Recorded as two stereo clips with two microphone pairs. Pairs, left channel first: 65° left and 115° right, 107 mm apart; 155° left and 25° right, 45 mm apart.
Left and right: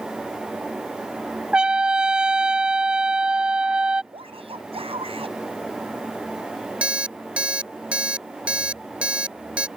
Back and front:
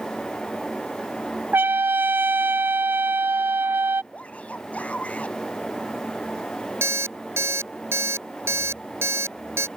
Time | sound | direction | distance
1.5 | a trumpet | 40° right | ?
4.1 | a shout | 145° right | ?
6.8 | an alarm clock | 40° right | ?